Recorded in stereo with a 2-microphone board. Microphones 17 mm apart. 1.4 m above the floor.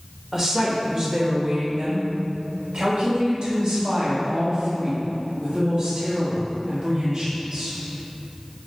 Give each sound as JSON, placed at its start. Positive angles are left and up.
{"t": 0.3, "sound": "a woman speaking", "side_deg": -25, "distance_m": 1.3}